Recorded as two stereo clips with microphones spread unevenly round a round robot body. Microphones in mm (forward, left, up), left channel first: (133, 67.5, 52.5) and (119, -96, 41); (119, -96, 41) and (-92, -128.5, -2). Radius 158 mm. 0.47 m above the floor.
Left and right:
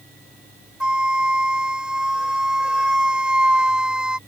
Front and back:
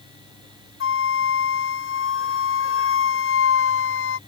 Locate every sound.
0.8 s a flute: 10° right